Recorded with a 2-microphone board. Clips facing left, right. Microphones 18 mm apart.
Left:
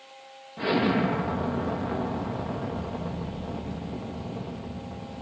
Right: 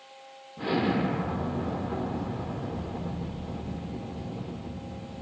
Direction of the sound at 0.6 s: 80° left.